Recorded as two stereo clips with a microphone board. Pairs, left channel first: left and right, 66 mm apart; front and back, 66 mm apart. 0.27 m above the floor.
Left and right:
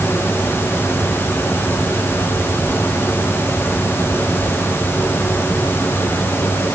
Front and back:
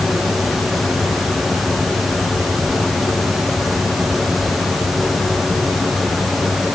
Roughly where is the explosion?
No explosion in this recording.